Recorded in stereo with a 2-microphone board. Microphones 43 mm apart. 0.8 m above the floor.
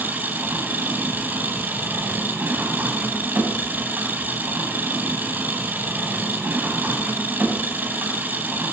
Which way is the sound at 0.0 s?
45° right (ahead or behind).